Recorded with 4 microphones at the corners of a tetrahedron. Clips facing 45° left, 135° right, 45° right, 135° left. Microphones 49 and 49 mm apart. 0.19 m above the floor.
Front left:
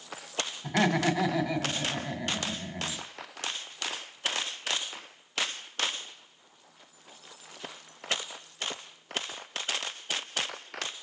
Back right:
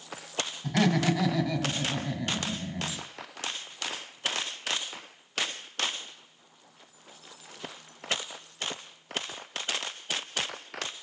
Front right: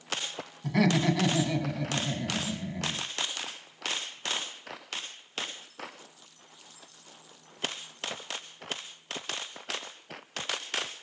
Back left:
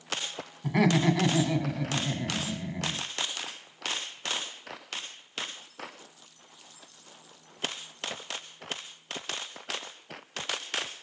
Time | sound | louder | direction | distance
0.6 | laughter | even, back left 1 dB | 95° left | 1.1 m